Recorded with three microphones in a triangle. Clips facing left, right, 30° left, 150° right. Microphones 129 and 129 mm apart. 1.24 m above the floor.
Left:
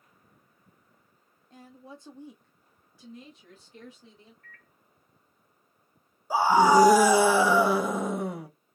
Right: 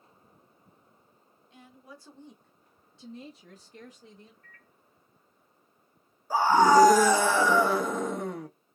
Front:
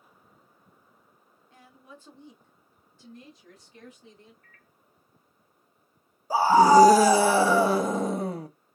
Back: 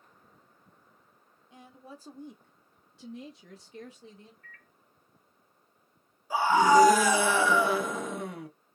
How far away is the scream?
About 0.7 m.